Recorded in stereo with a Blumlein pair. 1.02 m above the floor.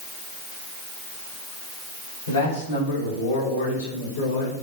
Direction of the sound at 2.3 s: 65° left.